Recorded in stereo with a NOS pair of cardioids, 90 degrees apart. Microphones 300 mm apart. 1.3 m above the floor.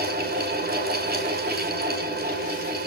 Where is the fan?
30° right, 5.5 m.